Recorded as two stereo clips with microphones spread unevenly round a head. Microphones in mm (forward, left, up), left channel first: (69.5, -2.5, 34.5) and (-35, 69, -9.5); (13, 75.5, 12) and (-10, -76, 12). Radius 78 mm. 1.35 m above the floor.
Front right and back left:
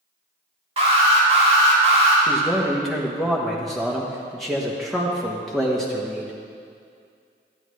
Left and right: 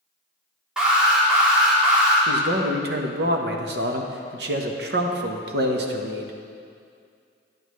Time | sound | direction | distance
0.8 | an alarm | 175° left | 3 m
2.3 | a man speaking | 120° right | 1.1 m